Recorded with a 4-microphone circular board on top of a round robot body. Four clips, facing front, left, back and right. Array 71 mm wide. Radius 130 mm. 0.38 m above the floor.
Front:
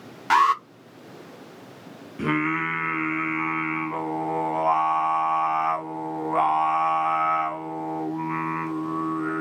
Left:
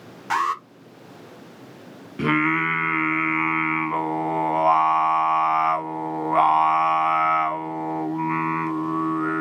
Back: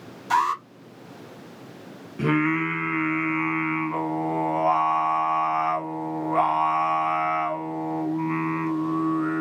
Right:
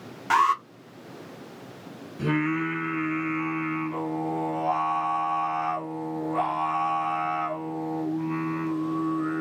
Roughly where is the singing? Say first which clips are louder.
Left 5 dB, back 2 dB; left.